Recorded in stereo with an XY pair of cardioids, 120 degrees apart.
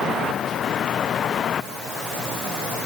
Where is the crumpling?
No crumpling in this recording.